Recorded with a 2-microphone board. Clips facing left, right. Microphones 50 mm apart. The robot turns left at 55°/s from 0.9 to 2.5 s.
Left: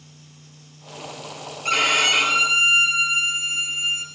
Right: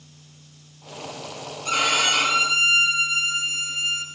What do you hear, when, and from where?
1.6 s a violin: 75° left, 3 m; by 4.0 s 25° left, 3 m